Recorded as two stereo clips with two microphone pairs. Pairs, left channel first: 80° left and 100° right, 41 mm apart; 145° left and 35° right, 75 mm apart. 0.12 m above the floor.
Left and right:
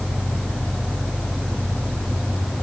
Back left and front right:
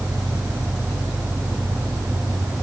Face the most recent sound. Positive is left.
No sound to turn to.